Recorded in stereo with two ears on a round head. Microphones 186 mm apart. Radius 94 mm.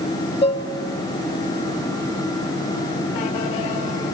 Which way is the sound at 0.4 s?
25° left (ahead or behind).